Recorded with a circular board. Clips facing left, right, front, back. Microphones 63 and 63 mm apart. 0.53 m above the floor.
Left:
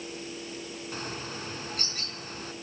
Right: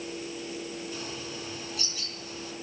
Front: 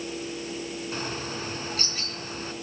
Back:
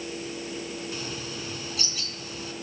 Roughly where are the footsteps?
I don't hear footsteps.